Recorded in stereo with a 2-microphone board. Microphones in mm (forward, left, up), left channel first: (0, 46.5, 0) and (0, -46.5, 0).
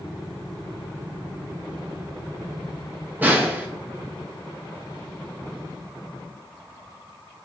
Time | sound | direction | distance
3.2 | a snare drum | 20° right (ahead or behind) | 0.5 m